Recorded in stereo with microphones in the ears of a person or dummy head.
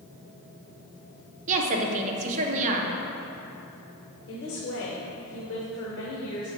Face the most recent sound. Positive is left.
turn(degrees=60)  # may be behind; listen again after turning